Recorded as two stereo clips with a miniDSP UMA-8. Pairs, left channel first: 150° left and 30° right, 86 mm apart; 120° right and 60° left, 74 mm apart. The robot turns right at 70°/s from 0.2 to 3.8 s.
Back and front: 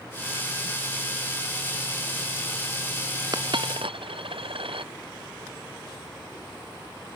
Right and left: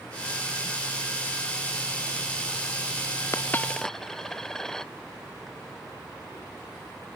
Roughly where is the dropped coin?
Right.